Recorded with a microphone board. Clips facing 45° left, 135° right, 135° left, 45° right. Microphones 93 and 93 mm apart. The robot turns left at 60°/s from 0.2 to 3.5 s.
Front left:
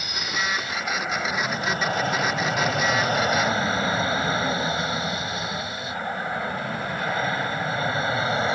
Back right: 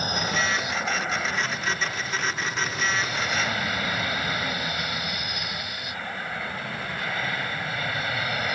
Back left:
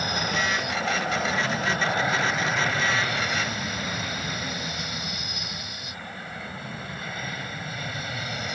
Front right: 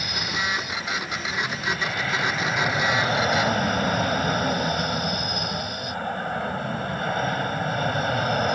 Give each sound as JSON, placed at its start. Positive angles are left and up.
{"t": 0.0, "sound": "an aircraft", "azimuth_deg": 180}